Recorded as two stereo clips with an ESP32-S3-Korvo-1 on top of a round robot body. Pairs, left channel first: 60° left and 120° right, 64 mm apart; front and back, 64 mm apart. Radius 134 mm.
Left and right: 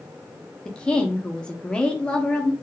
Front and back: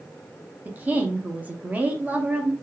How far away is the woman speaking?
About 0.8 m.